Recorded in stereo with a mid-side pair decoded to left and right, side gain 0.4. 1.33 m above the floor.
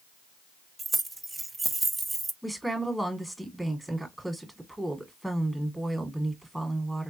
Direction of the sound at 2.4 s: 15° right.